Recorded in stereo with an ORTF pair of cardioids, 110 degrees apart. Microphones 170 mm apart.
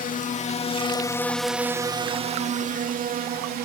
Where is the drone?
55° left; by 3.7 s 65° right.